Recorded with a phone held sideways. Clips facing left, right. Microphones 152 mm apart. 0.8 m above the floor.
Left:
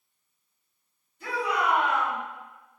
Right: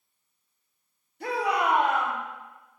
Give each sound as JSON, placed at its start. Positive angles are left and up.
{"t": 1.2, "sound": "a shout", "side_deg": -75, "distance_m": 4.0}